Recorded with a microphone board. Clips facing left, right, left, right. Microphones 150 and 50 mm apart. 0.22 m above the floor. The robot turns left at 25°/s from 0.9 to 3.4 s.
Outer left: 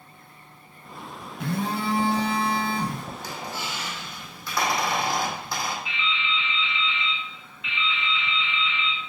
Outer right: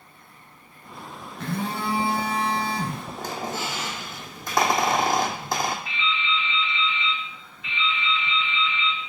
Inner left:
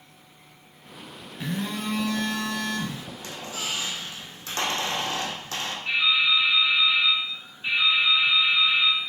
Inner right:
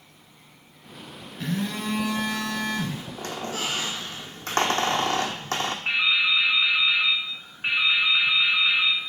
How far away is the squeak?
About 0.8 m.